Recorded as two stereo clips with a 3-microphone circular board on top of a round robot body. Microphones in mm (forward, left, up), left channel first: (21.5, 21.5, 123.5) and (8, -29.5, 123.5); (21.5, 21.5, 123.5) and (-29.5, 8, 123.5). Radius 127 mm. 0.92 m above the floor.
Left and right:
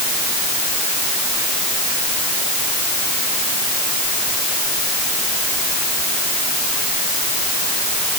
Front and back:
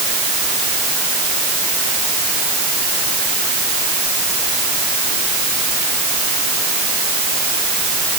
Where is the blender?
No blender in this recording.